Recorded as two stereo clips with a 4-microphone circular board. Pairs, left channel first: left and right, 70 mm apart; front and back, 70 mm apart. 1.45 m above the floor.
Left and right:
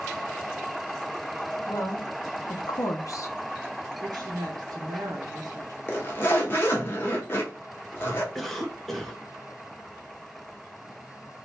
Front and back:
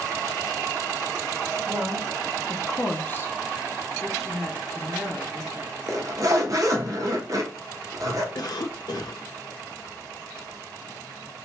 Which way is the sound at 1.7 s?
130° left.